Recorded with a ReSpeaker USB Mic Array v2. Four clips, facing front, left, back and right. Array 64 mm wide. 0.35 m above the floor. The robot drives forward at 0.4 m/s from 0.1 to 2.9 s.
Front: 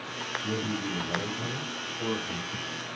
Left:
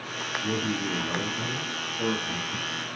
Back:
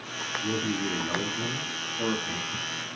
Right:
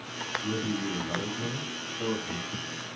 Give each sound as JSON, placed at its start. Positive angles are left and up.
{"t": 0.4, "sound": "a man speaking", "azimuth_deg": 130, "distance_m": 4.5}